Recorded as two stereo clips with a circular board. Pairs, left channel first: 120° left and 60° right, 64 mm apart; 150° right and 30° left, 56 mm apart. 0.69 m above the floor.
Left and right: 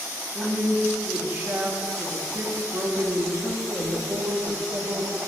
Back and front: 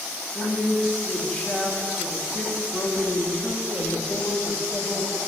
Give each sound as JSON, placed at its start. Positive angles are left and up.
{"t": 0.3, "sound": "a woman speaking", "azimuth_deg": -85, "distance_m": 0.7}